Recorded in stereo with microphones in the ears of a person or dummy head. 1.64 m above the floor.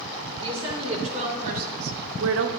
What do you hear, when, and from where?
0.4 s a woman speaking: 30° right (ahead or behind), 2.5 m; by 2.5 s 60° right (ahead or behind), 0.9 m